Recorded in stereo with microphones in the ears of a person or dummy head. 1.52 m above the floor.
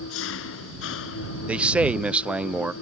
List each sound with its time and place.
0.0 s an engine running: 70° left (ahead or behind)
1.5 s a man speaking: 10° right (ahead or behind)